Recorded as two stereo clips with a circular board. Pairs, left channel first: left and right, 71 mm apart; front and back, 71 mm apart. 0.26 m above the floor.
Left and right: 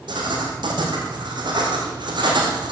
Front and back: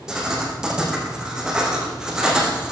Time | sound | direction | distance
0.1 | writing | 100° right | 3 m